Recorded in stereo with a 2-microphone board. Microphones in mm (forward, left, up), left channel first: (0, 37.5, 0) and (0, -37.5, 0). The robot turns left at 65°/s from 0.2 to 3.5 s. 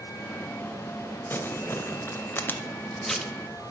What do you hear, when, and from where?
1.3 s crumpling: 30° left (ahead or behind), 0.9 m; by 3.3 s 5° right (ahead or behind), 0.9 m